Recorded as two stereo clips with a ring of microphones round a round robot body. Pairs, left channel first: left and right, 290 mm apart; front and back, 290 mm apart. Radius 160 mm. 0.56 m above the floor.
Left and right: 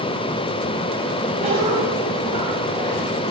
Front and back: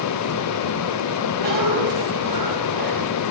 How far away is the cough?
About 4 m.